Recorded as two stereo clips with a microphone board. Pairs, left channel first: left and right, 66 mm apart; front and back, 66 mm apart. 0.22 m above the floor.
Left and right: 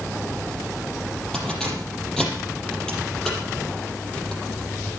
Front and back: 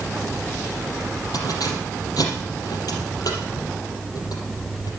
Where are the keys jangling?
10° left, 5 m.